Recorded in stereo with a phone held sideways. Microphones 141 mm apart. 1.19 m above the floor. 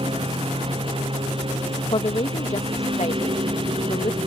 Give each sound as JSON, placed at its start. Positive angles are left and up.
{"t": 0.0, "sound": "a lawn mower", "side_deg": -40}
{"t": 1.9, "sound": "a woman speaking", "side_deg": 50}